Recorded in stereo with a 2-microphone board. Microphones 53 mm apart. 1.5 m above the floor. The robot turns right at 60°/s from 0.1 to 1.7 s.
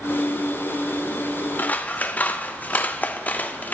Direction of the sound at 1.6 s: 35° left (ahead or behind).